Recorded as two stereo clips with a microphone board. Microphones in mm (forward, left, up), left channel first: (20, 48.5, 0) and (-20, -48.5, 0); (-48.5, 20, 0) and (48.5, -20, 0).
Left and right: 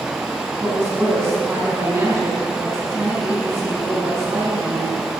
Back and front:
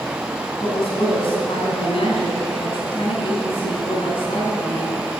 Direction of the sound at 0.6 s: 175° right.